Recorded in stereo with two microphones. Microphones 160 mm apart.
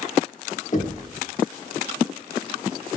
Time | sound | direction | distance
0.7 | knocking | 50° left (ahead or behind) | 1.1 m